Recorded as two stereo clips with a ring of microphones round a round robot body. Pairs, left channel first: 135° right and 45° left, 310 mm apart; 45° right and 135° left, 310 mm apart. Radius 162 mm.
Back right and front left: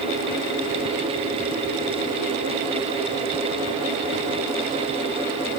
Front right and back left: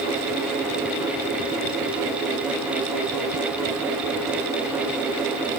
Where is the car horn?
I don't hear a car horn.